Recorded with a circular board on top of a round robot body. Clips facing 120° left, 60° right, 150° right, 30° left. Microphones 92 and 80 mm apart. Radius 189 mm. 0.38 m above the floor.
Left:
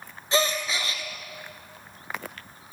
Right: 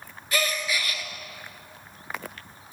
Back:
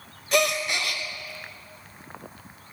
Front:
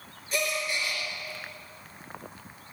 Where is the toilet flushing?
I don't hear a toilet flushing.